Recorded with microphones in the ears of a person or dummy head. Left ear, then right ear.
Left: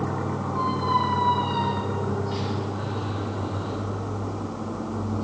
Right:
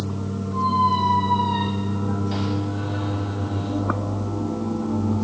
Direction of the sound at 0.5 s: 25° right (ahead or behind).